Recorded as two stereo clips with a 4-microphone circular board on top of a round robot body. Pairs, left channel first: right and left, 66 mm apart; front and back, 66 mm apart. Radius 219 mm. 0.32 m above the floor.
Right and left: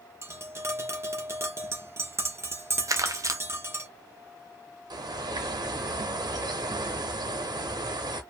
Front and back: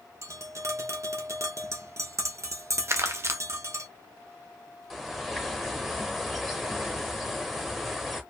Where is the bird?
90° left, 0.7 m.